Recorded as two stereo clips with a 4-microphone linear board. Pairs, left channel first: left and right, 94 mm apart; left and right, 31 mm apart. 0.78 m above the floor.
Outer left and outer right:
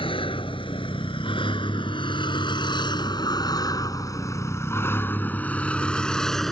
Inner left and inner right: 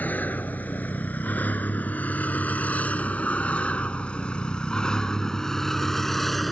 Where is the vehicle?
90° left; by 6.5 s 5° left (ahead or behind).